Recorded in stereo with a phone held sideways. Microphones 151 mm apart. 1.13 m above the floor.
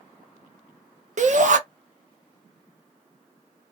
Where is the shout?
60° right (ahead or behind), 0.7 m.